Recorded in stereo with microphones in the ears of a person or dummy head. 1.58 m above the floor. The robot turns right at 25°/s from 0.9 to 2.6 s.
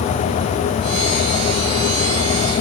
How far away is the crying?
No crying in this recording.